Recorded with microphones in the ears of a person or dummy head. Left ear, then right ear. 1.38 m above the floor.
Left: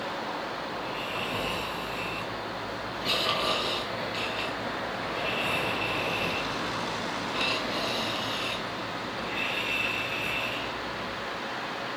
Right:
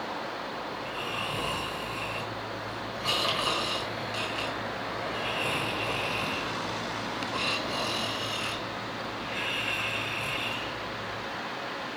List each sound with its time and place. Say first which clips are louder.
0.7 s snoring: left 1 dB; 40° right (ahead or behind), 1.4 m